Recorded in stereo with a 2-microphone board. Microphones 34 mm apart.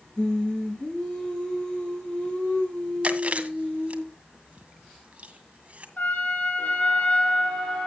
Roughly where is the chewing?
Right.